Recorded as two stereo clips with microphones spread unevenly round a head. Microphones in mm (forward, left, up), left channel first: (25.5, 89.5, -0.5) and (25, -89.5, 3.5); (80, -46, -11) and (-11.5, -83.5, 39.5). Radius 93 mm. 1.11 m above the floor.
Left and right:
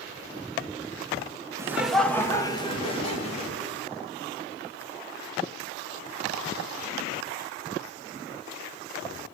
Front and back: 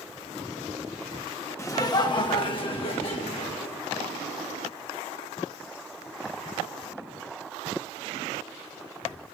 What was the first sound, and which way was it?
Laughter, 15° right.